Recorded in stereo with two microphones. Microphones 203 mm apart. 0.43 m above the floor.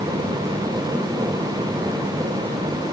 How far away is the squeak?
I don't hear a squeak.